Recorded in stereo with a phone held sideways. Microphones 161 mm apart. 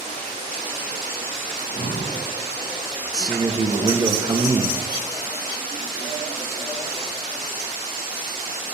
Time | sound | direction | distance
1.5 | breathing | 70° left (ahead or behind) | 1.9 m
3.1 | a man speaking | 25° right (ahead or behind) | 0.7 m